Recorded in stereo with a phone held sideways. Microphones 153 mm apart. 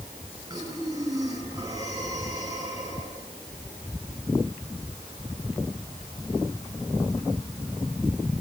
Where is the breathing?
25° right (ahead or behind), 7 m.